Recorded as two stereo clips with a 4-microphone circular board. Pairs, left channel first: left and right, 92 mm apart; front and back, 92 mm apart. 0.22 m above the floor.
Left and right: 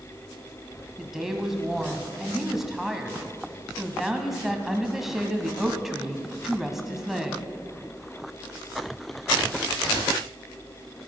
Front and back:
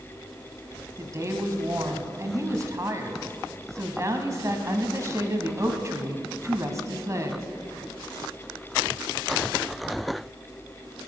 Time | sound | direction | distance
1.0 | a woman speaking | 175° right | 1.5 m